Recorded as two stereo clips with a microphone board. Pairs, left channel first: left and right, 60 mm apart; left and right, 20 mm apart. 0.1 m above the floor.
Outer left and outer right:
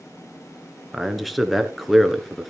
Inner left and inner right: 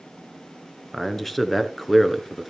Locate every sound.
0.9 s a man speaking: centre (ahead or behind), 1.1 m